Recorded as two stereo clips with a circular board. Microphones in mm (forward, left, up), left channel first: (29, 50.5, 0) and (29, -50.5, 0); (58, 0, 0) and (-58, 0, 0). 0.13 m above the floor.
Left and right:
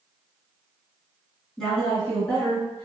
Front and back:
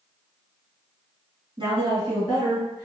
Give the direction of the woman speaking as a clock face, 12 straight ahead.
6 o'clock.